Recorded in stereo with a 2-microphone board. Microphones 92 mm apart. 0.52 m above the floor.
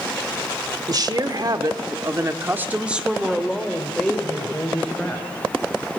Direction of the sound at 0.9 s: 45° right (ahead or behind).